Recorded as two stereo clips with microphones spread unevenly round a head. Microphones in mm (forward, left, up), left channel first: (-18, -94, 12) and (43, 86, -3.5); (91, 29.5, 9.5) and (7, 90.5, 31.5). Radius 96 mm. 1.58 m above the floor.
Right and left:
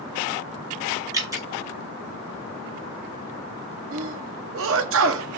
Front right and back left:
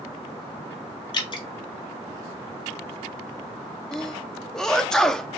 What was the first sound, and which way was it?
Dripping, straight ahead.